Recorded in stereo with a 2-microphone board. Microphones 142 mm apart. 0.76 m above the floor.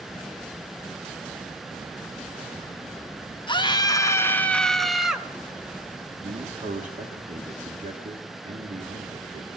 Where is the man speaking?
55° right (ahead or behind), 1.9 m.